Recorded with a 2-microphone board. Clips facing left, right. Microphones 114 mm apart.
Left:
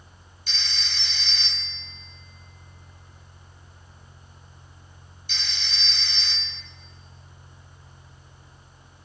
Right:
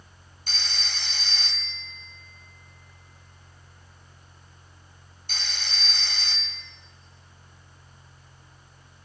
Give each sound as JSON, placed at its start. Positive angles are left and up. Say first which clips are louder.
{"t": 0.5, "sound": "a phone ringing", "louder": "right 1 dB", "side_deg": -45, "distance_m": 1.8}